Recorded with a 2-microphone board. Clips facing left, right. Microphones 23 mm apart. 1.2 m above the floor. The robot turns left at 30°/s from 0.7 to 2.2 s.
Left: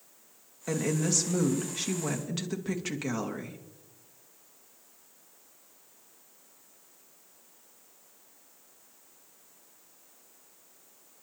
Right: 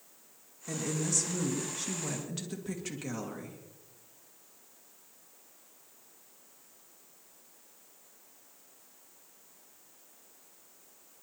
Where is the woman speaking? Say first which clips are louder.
Left 5 dB; 70° left, 1.8 m; by 3.6 s 25° left, 1.8 m.